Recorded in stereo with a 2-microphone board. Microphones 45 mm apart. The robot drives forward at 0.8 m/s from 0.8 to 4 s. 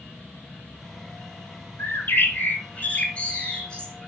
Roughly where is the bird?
Left.